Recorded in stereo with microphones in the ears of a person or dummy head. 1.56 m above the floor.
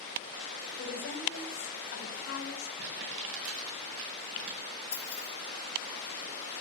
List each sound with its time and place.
0.8 s a woman speaking: 85° left, 5.5 m
2.8 s crumpling: 70° right (ahead or behind), 6.5 m
4.9 s keys jangling: 20° left (ahead or behind), 6 m